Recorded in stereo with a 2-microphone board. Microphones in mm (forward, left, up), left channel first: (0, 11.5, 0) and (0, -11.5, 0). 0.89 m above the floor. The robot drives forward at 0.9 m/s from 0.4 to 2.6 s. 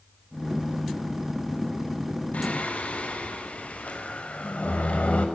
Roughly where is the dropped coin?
I don't hear a dropped coin.